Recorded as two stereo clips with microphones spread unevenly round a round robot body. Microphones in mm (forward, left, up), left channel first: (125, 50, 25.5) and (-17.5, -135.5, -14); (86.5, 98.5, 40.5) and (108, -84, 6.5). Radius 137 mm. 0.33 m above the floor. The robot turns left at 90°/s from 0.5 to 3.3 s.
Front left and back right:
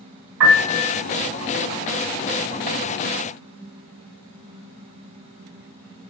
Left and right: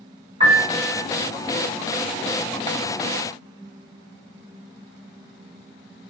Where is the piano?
140° right, 3 m; by 1.0 s straight behind, 3 m.